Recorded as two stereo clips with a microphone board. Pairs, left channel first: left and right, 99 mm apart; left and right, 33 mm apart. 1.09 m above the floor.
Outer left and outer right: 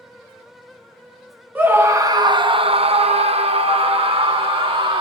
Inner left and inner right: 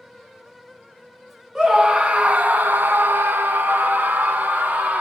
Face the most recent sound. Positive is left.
turn(degrees=-60)  # may be behind; listen again after turning